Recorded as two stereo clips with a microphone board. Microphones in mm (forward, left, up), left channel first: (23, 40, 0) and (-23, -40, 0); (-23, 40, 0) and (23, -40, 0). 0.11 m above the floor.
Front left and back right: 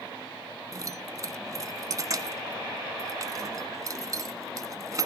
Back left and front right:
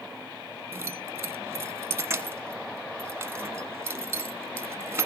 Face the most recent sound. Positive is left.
turn(degrees=-105)